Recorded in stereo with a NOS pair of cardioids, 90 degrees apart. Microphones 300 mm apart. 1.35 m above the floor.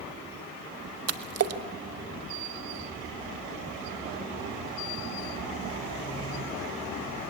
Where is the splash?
50° right, 1.3 m.